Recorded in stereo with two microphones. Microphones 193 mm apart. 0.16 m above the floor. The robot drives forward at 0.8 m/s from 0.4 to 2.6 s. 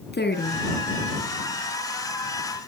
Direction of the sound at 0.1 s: 60° left (ahead or behind).